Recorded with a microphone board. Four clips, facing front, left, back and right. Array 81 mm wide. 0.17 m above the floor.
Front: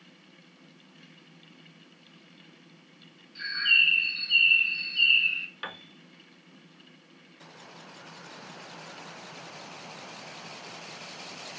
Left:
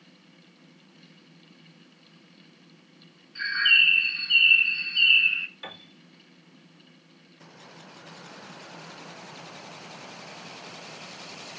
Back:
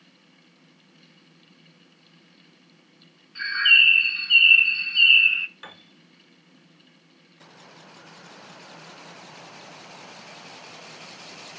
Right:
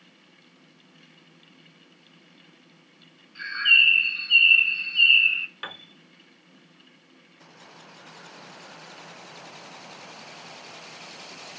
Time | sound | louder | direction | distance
3.4 | a bird | even, back 7 dB | 175° right | 2.0 m
5.6 | a piano | right 3 dB, front 5 dB | 60° right | 1.5 m